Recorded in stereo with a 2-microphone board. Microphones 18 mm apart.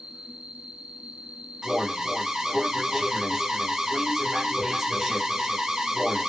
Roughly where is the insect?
Right.